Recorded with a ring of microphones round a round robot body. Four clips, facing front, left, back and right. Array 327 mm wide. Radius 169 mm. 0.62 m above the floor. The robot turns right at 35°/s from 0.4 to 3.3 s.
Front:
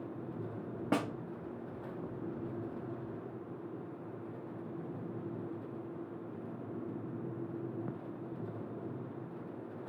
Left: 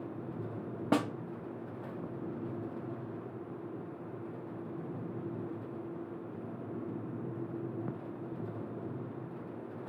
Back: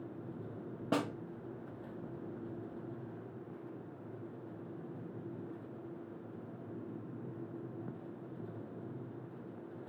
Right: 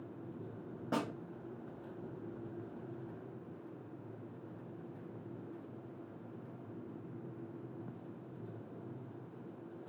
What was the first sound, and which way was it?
A snare drum, 75° left.